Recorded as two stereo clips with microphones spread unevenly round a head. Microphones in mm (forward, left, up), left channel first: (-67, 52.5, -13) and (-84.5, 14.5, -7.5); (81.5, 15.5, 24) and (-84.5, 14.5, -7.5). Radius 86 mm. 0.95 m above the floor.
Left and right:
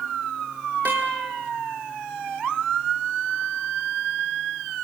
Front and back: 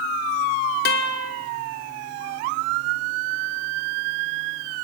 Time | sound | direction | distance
0.8 | a guitar | 35° right | 2 m